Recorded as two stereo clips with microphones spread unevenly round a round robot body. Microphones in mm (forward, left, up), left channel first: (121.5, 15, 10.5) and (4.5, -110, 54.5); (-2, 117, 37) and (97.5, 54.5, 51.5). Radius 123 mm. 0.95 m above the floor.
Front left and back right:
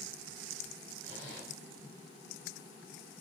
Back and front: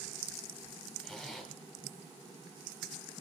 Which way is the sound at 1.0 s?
55° left.